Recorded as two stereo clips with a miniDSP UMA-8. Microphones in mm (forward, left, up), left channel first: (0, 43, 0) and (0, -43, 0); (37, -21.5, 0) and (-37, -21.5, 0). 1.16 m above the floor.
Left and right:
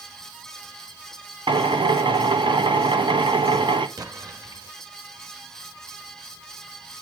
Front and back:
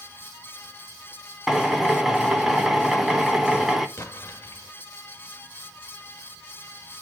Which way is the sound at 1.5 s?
95° right.